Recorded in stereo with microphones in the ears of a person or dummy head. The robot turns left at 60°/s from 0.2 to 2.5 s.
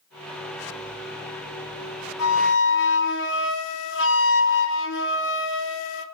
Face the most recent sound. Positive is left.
turn(degrees=75)  # may be behind; listen again after turning